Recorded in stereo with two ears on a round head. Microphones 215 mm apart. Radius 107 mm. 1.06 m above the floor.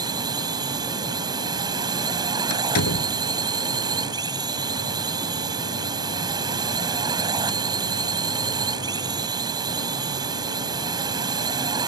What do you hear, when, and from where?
0.0 s a drone: 15° right (ahead or behind)
2.5 s a door slam: 65° left (ahead or behind)